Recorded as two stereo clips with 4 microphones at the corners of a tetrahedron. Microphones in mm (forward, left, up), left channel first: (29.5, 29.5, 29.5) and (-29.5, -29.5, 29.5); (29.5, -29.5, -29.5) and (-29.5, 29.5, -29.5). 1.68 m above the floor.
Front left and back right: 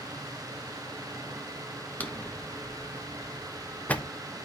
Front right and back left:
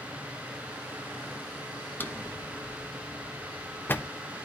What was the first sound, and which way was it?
A drawer, 5° right.